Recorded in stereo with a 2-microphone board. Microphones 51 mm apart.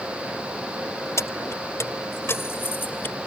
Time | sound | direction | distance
1.2 | keys jangling | 70° left (ahead or behind) | ?